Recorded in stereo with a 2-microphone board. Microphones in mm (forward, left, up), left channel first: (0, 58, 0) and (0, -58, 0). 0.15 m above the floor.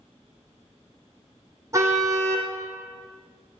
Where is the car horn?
25° right (ahead or behind), 4 m.